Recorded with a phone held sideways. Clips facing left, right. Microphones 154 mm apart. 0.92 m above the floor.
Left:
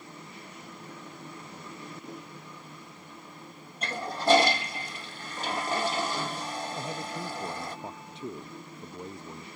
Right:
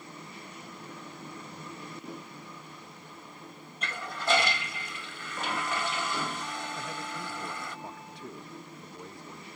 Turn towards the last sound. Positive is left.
turn(degrees=20)  # may be behind; listen again after turning